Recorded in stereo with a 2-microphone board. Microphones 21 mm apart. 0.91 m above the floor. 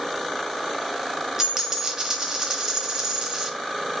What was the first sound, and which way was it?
A dropped coin, 30° right (ahead or behind).